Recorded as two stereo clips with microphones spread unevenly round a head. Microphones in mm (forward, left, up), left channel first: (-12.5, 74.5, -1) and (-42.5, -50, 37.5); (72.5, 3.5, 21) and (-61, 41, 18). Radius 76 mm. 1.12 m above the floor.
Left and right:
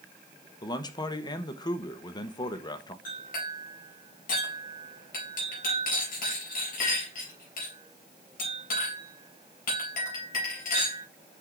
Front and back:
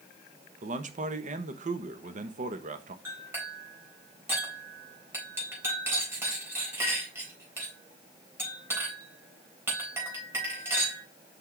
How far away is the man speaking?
About 1.0 m.